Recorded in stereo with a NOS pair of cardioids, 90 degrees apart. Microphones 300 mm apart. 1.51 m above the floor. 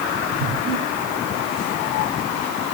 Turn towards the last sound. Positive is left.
turn(degrees=-50)